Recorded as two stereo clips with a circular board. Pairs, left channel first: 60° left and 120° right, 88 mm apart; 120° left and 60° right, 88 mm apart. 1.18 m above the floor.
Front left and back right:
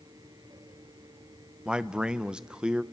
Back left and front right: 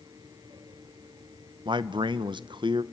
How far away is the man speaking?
About 0.7 m.